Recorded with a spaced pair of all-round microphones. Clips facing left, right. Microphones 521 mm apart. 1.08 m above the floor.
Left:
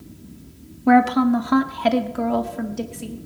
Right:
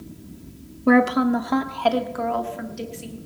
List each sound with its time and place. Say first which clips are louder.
0.9 s a woman speaking: left 1 dB; 5° left (ahead or behind), 0.8 m; by 3.1 s 65° left (ahead or behind), 1.3 m